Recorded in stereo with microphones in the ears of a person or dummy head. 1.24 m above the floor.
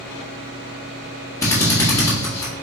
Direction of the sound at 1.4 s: 10° left (ahead or behind).